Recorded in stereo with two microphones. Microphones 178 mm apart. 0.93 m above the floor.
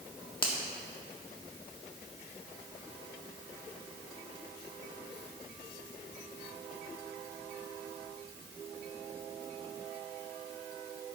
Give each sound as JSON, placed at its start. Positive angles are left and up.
{"t": 0.4, "sound": "a finger snap", "side_deg": 30, "distance_m": 1.5}